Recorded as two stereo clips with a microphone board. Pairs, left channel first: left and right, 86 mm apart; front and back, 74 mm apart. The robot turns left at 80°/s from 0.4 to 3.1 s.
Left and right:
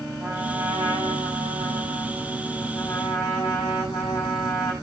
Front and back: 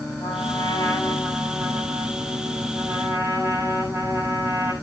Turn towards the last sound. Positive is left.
turn(degrees=125)